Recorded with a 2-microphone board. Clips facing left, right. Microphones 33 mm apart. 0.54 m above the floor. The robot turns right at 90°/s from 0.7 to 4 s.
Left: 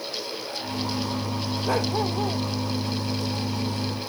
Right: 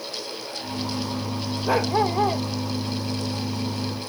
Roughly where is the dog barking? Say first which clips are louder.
Right 4 dB; behind.